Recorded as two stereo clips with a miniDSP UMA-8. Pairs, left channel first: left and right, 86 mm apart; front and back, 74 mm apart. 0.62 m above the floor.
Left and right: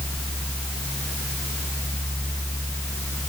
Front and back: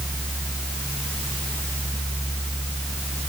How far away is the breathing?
No breathing in this recording.